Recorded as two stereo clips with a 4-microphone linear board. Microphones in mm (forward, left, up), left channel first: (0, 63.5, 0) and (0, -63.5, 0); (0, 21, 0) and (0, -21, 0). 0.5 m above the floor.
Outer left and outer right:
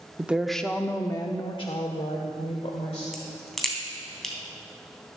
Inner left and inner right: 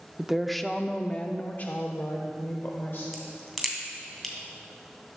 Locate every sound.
0.2 s a woman speaking: 15° right (ahead or behind), 0.7 m; by 3.0 s 60° left (ahead or behind), 1.6 m
3.1 s a crack: 5° left (ahead or behind), 2.5 m